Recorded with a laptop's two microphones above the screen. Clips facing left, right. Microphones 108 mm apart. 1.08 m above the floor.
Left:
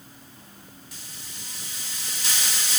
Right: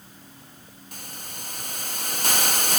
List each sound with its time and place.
0.9 s a hiss: 50° right (ahead or behind), 0.6 m